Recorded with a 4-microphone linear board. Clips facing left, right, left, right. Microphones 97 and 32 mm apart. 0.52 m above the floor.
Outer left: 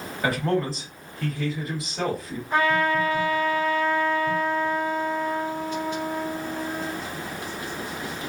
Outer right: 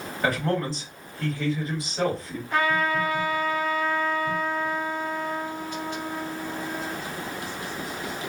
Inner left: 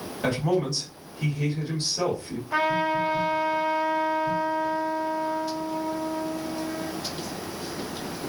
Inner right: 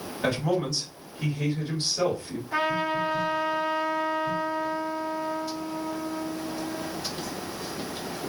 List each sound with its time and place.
0.2 s a man speaking: centre (ahead or behind), 1.7 m
2.5 s a trumpet: 25° left (ahead or behind), 1.9 m